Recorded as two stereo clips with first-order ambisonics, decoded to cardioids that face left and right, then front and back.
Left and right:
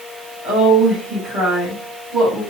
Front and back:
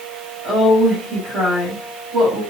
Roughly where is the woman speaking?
Behind right.